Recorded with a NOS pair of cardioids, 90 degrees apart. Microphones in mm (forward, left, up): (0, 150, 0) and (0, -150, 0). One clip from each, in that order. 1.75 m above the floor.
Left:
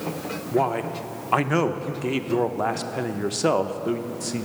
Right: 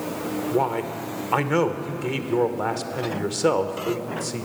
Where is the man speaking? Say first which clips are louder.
Left 2 dB; 5° left, 0.5 m.